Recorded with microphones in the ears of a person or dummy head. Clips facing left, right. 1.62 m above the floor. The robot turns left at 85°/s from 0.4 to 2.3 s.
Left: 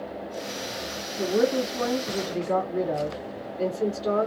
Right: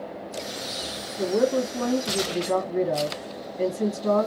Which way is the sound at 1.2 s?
25° left.